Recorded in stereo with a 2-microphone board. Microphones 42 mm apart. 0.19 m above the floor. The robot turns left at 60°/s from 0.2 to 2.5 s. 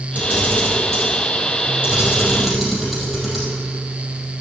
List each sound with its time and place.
0.1 s a camera shutter: 40° right (ahead or behind), 5 m; by 3.5 s 5° right (ahead or behind), 5 m